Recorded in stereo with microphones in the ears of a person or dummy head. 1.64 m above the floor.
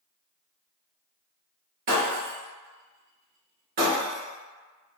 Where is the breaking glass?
50° right (ahead or behind), 1.3 m.